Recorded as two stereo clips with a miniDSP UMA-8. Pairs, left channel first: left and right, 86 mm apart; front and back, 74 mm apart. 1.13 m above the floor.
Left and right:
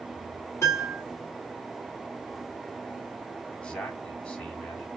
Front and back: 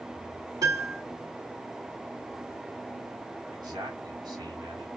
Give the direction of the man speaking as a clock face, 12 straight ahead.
6 o'clock.